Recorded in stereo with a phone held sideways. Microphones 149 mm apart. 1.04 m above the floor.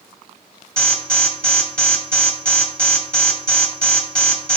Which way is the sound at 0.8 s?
5° left (ahead or behind).